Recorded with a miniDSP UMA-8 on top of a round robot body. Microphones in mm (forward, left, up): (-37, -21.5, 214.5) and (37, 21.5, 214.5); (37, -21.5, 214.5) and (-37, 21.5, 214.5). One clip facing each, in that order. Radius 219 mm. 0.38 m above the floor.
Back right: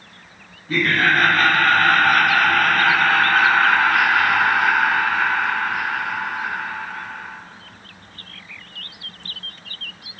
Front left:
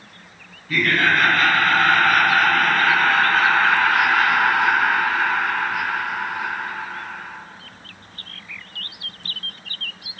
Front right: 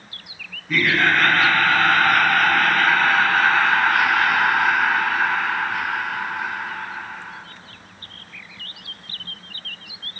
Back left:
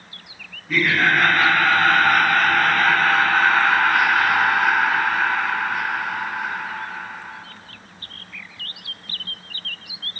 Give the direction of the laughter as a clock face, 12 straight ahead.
4 o'clock.